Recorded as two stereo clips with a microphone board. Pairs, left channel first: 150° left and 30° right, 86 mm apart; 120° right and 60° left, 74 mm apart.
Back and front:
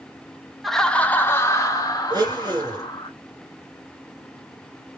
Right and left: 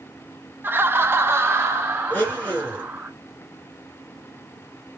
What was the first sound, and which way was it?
Laughter, 60° left.